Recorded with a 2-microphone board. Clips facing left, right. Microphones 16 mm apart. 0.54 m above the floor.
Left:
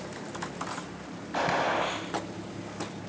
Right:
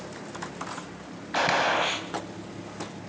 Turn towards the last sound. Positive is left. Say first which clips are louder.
# right 3 dB
turn(degrees=-35)  # may be behind; listen again after turning